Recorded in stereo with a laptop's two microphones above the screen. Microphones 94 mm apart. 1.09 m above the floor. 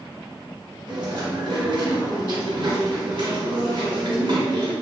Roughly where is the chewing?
Right.